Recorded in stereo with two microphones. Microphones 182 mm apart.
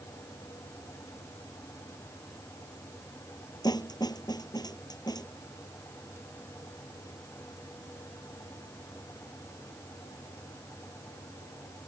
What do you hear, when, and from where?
3.6 s a snare drum: 20° left (ahead or behind)